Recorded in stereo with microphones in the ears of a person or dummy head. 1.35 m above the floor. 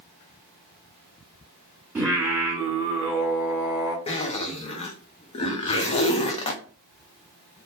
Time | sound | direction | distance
1.9 | singing | 10° right (ahead or behind) | 1.0 m
4.1 | a zipper | 30° left (ahead or behind) | 0.5 m